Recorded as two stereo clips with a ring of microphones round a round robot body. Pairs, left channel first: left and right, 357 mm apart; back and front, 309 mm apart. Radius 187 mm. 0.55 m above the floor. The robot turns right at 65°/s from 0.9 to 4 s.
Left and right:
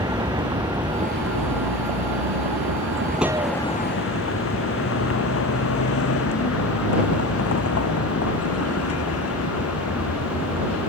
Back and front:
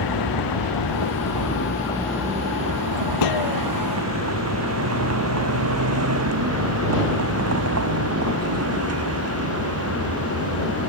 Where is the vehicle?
170° right; by 10.9 s 40° left.